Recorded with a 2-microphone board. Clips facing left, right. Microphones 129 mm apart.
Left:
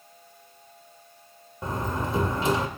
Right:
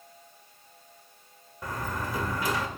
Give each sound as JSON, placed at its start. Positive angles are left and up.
{"t": 1.6, "sound": "a door slam", "side_deg": 25, "distance_m": 1.2}